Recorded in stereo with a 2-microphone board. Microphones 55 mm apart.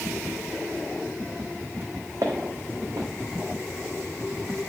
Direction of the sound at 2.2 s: 60° right (ahead or behind).